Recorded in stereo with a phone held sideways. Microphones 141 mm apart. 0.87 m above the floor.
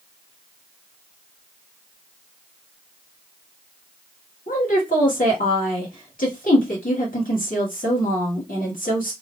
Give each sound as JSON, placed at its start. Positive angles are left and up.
{"t": 4.5, "sound": "a woman speaking", "side_deg": 70, "distance_m": 1.9}